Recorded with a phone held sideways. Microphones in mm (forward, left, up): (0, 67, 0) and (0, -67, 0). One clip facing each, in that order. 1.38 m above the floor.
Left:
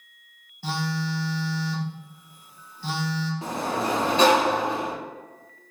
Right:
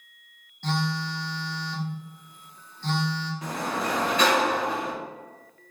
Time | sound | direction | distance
0.6 | a phone buzzing | 10° left (ahead or behind) | 0.7 m
3.4 | a sliding door | 30° left (ahead or behind) | 0.8 m